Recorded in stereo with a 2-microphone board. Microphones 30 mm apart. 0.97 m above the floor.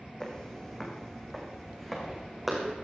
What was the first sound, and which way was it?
Footsteps, 20° left (ahead or behind).